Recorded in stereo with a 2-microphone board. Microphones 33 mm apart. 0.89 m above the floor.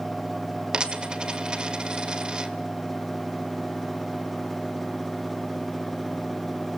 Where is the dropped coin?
25° right (ahead or behind), 1.7 m.